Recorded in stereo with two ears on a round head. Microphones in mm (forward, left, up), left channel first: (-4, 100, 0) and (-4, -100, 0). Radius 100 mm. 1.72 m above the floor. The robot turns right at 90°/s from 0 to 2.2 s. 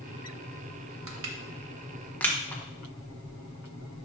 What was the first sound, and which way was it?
Crushing, 65° right (ahead or behind).